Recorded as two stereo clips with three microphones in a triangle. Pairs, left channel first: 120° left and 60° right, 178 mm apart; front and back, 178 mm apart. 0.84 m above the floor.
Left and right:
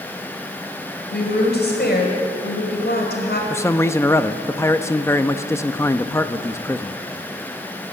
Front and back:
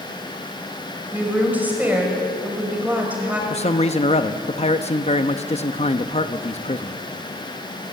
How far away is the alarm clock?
I don't hear an alarm clock.